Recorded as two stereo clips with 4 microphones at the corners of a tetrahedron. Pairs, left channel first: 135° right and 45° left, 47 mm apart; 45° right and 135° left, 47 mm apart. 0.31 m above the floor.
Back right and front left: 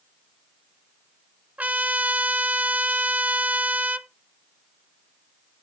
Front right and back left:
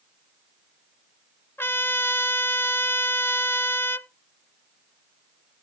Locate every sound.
1.6 s a trumpet: 10° right, 0.5 m